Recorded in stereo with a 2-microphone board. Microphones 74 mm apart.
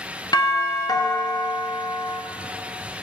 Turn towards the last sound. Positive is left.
turn(degrees=65)  # may be behind; listen again after turning